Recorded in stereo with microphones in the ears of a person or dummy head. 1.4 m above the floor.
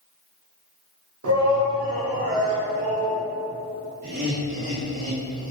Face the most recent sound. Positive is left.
turn(degrees=-45)  # may be behind; listen again after turning